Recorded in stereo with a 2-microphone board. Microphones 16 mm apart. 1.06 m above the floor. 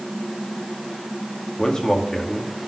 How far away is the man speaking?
About 2.0 m.